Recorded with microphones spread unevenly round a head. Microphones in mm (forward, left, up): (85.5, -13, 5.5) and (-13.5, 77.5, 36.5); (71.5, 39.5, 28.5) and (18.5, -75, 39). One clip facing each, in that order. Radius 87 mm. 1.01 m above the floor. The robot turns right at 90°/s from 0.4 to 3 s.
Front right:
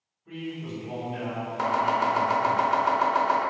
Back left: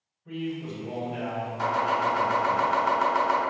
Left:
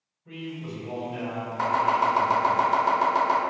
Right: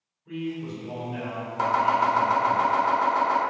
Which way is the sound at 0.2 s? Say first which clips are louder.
Back left 3 dB, right 5 dB; 90° left.